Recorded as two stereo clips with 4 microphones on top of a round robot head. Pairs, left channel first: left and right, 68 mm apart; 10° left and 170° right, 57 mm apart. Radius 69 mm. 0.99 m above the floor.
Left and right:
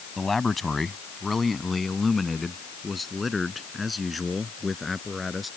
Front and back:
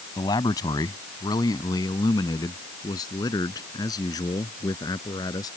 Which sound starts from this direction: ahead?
A man speaking, at 0.2 s.